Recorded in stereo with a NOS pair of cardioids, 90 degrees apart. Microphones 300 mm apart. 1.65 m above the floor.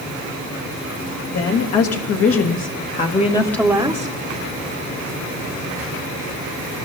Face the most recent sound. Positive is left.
turn(degrees=-25)